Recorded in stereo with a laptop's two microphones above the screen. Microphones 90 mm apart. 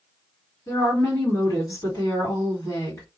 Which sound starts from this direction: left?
A woman speaking, at 0.7 s.